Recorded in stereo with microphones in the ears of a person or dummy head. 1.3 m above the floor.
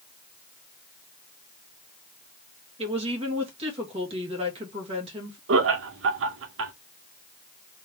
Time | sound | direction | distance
2.8 | a woman speaking | 30° right (ahead or behind) | 2.0 m
5.5 | laughter | 75° right (ahead or behind) | 1.0 m